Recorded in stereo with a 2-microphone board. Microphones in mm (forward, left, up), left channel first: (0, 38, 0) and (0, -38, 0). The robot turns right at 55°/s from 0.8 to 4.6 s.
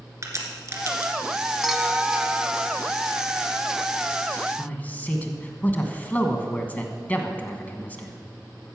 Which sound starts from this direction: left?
A man speaking, at 4.6 s.